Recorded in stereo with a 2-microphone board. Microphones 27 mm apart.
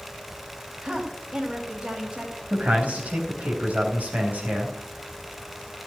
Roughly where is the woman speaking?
Right.